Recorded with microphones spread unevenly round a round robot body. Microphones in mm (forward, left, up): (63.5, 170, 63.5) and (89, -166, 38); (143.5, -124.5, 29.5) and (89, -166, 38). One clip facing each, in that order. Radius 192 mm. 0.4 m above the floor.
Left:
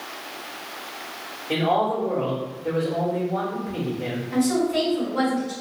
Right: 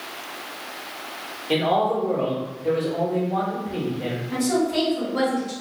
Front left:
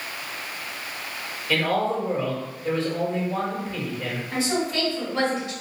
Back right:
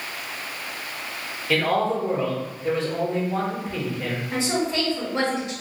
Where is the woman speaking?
80° right, 1.8 m.